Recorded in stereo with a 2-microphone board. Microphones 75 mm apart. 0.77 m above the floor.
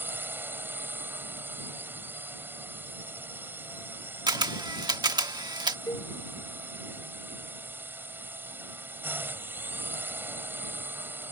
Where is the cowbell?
70° left (ahead or behind).